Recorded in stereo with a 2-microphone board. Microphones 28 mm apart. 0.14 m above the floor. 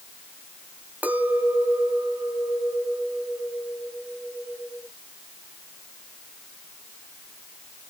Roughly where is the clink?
Right.